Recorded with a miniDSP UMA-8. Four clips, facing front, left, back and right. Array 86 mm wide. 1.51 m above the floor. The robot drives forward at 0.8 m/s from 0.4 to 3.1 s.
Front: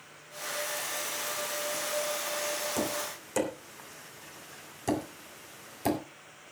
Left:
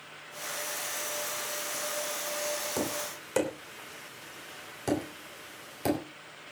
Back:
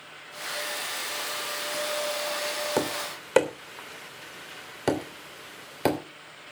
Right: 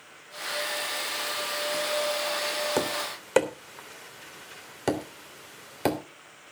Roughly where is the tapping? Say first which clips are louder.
Right 5 dB, back 4 dB; behind right.